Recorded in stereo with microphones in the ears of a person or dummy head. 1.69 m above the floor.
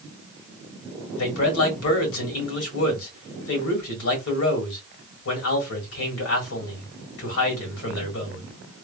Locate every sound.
1.1 s a man speaking: 80° left, 1.9 m